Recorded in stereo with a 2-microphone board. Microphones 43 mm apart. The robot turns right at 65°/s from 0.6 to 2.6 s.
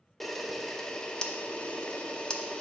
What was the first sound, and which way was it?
A camera shutter, 5° left (ahead or behind).